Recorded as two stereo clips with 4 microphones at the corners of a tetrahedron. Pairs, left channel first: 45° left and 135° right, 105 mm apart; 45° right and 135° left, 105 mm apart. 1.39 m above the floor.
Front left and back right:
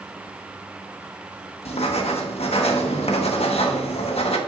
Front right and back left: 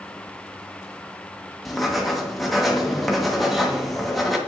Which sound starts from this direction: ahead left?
Writing, at 1.6 s.